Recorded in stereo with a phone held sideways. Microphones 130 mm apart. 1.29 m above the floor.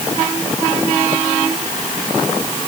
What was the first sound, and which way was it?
Only background noise.